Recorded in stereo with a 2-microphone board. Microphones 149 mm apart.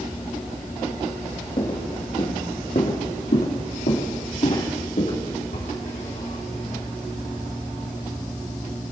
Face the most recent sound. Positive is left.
turn(degrees=70)  # may be behind; listen again after turning